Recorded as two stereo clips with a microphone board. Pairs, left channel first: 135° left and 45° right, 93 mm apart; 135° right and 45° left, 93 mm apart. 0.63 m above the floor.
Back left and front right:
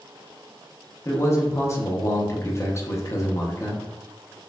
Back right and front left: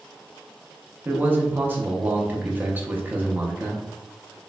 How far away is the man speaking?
About 0.7 m.